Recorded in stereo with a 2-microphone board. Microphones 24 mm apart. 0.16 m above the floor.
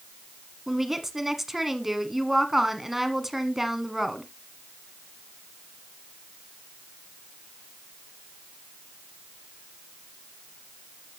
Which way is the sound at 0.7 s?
15° right (ahead or behind).